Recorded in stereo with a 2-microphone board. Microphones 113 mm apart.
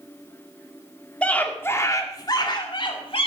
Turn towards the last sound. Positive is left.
turn(degrees=55)  # may be behind; listen again after turning